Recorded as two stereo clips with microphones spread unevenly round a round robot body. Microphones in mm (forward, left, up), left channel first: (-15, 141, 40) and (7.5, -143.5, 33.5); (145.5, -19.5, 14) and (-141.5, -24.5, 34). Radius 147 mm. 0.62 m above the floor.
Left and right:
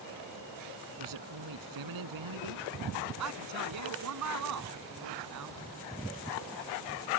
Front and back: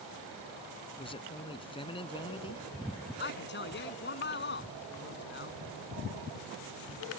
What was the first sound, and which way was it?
A man speaking, 70° right.